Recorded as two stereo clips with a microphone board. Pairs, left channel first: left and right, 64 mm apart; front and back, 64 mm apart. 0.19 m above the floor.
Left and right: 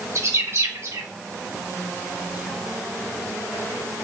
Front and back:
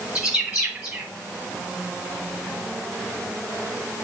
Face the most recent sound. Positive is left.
turn(degrees=-105)